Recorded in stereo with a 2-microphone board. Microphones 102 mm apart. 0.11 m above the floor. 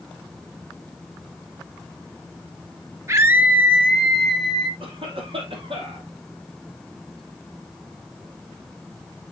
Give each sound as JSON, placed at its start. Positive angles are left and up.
{"t": 3.1, "sound": "a scream", "side_deg": -30, "distance_m": 1.6}
{"t": 4.8, "sound": "a cough", "side_deg": -65, "distance_m": 3.5}